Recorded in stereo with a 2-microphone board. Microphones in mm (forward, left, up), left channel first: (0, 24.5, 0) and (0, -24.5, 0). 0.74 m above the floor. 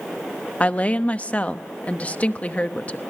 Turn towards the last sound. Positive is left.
turn(degrees=30)  # may be behind; listen again after turning